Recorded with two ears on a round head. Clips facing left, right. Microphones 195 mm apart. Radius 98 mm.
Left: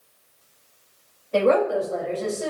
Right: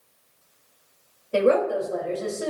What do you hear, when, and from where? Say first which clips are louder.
1.3 s a woman speaking: left 1 dB; 25° right (ahead or behind), 2.5 m; by 2.5 s 20° right (ahead or behind), 3 m